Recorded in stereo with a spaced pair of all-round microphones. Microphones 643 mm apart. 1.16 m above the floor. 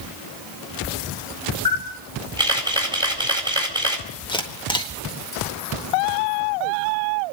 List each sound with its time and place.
1.6 s a camera shutter: 5° right (ahead or behind), 4.5 m
4.3 s a camera shutter: 5° left (ahead or behind), 1.6 m